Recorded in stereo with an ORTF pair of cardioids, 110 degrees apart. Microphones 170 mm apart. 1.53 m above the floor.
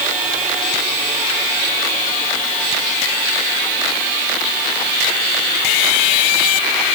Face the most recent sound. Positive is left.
No sound to turn to.